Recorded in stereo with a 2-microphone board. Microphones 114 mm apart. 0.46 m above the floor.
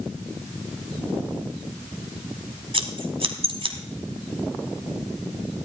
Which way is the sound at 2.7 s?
55° right (ahead or behind).